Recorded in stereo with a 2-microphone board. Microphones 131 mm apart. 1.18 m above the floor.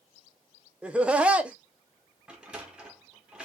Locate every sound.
0.8 s laughter: 10° right (ahead or behind), 0.5 m
2.3 s a sliding door: 5° right (ahead or behind), 0.7 m